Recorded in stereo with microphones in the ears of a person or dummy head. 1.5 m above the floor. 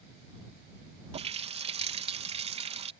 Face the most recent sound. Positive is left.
turn(degrees=-25)  # may be behind; listen again after turning